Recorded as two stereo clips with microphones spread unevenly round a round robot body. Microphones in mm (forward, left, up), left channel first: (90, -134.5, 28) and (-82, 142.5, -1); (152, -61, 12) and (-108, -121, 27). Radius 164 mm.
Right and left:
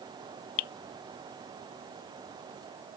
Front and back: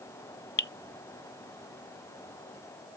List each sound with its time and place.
0.6 s dripping: 40° right